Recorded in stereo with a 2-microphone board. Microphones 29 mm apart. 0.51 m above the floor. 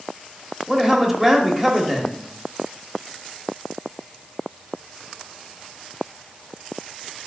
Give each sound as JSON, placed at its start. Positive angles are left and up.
{"t": 0.7, "sound": "a man speaking", "side_deg": -10, "distance_m": 1.1}